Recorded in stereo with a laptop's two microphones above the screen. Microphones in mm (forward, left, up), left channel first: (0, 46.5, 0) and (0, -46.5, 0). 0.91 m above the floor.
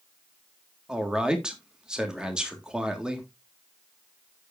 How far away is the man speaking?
About 1.5 m.